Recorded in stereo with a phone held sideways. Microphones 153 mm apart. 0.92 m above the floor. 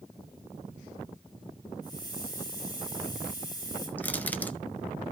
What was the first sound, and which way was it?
A hiss, 25° left (ahead or behind).